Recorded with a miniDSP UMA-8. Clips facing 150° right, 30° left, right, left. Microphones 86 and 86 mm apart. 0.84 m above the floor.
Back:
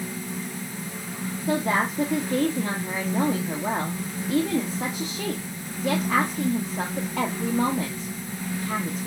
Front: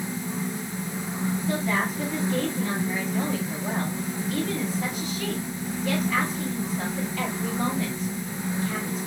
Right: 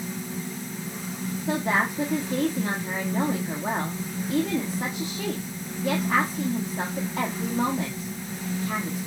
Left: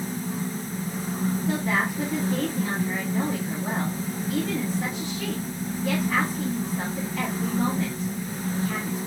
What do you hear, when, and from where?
1.5 s a woman speaking: 140° right, 1.1 m